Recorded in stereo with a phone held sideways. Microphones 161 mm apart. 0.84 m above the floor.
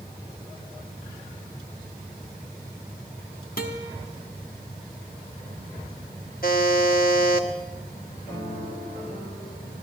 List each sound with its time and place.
3.6 s a guitar: 60° left (ahead or behind), 1.2 m
6.4 s a buzzer: 65° left (ahead or behind), 1.2 m
8.3 s a piano: 30° left (ahead or behind), 5 m